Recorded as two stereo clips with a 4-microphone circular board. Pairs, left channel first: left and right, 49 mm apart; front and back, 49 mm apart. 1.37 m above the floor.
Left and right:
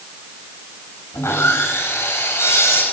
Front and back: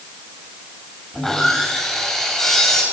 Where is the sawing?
80° left, 7 m.